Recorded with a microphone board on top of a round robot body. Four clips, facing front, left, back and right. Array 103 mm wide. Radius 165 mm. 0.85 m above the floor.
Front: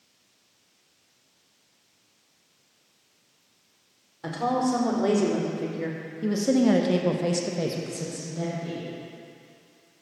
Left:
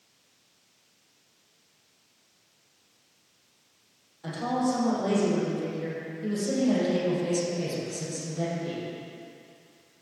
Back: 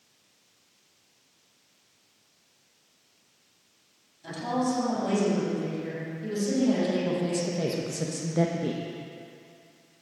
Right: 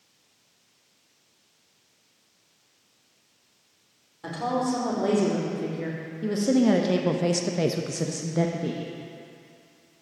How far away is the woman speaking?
About 3 m.